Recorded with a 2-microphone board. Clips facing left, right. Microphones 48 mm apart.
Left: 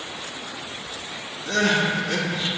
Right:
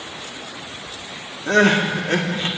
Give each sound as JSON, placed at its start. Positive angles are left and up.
{"t": 1.5, "sound": "crying", "side_deg": -45, "distance_m": 1.7}